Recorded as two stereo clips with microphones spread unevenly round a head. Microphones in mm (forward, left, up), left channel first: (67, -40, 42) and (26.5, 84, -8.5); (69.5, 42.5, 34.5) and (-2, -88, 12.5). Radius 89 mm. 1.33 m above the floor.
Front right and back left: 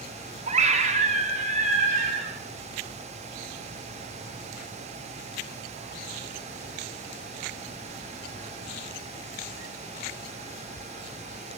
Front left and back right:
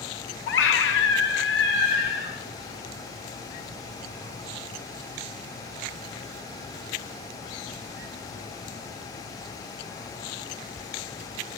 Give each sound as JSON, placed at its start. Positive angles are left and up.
{"t": 0.5, "sound": "a scream", "azimuth_deg": 75, "distance_m": 2.5}